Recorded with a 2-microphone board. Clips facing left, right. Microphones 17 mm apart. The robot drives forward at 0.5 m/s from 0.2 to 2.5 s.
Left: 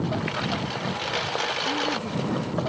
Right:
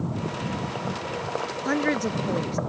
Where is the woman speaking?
75° right (ahead or behind); by 2.6 s 80° right.